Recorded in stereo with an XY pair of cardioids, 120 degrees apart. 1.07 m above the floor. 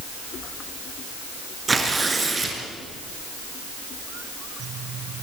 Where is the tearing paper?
20° right, 5 m.